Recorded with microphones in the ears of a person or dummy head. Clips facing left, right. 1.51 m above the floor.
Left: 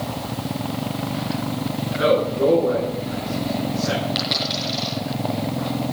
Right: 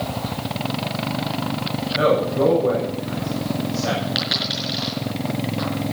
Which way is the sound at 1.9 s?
60° right (ahead or behind).